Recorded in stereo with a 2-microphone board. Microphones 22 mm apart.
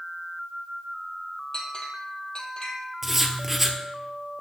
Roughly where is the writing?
Centre.